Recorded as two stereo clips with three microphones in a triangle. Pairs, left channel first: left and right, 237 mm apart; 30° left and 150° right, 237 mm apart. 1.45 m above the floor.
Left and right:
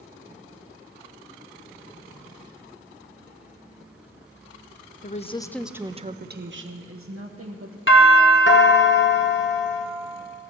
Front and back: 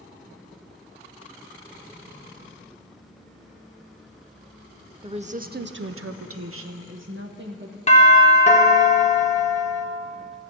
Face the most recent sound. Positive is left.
turn(degrees=85)